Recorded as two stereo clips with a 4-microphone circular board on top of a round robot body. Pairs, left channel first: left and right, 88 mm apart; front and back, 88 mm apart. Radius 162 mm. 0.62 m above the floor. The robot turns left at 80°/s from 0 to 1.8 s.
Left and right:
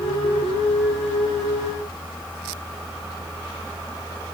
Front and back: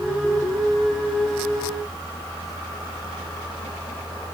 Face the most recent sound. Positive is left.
No sound to turn to.